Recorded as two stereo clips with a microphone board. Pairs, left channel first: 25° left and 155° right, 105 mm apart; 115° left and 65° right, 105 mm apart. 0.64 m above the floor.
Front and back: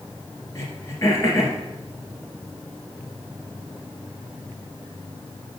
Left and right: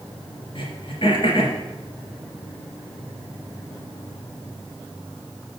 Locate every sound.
0.6 s throat clearing: 80° left, 2.5 m